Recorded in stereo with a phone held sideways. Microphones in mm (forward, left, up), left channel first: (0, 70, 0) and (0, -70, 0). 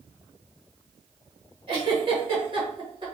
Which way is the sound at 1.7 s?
40° right (ahead or behind).